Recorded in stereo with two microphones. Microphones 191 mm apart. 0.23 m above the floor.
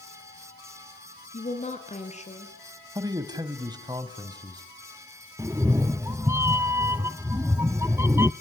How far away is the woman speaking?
About 3 m.